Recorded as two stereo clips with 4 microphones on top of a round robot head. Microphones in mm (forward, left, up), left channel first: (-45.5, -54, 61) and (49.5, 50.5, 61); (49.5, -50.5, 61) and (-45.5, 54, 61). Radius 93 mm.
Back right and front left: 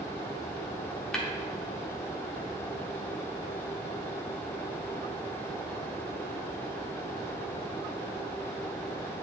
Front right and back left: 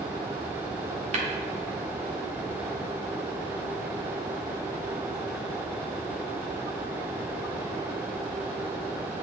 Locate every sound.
1.1 s tapping: 145° left, 1.3 m